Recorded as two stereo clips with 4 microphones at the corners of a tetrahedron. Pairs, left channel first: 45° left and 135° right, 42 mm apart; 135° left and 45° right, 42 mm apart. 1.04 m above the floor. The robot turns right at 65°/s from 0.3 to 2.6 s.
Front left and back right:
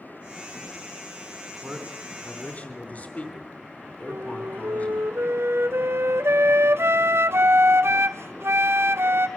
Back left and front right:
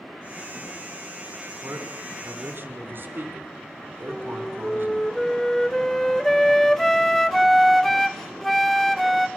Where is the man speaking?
80° right, 3.5 m; by 5.1 s 10° right, 3.5 m.